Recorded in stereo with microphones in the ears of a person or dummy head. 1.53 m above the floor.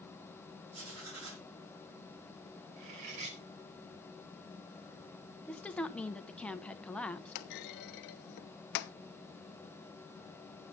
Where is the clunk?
60° left (ahead or behind), 0.5 m.